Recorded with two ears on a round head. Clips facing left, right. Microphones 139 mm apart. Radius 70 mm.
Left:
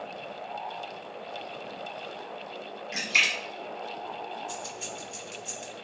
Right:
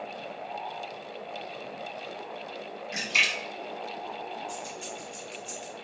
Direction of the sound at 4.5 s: 35° left (ahead or behind).